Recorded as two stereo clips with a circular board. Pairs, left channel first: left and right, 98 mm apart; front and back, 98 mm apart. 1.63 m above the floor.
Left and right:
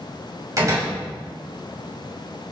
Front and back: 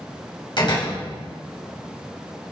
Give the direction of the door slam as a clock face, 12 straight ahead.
1 o'clock.